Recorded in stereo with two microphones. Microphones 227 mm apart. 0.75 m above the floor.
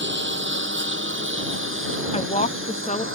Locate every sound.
0.0 s a lawn mower: 60° right (ahead or behind); by 3.1 s 75° right (ahead or behind)
2.1 s a woman speaking: 30° left (ahead or behind)